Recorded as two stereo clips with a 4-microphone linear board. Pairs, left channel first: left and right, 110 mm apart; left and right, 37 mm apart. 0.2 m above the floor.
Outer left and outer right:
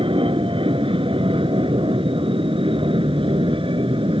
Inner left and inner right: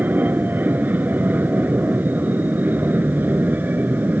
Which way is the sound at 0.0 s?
50° right (ahead or behind).